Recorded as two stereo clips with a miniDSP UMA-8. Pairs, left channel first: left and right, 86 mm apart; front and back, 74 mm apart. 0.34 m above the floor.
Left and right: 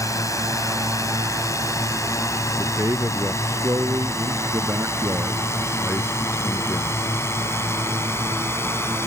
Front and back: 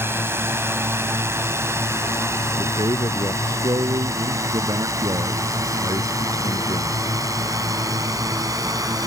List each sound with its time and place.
0.0 s a drone: 130° left; by 9.1 s 145° left
2.6 s a man speaking: 150° right